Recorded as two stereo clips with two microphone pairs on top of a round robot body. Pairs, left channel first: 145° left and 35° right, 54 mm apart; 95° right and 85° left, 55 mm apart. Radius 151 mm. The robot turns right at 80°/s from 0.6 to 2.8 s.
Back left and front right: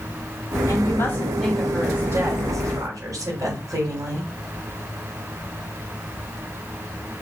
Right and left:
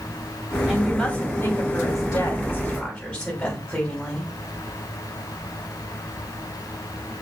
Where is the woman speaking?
165° left, 6.5 m; by 4.3 s 25° right, 6.5 m.